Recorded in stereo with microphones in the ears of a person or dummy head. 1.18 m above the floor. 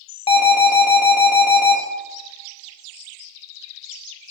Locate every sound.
0.3 s an alarm: 30° left (ahead or behind), 1.4 m